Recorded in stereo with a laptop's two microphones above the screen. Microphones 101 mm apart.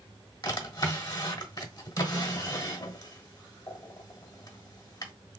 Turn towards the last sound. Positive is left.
turn(degrees=40)  # may be behind; listen again after turning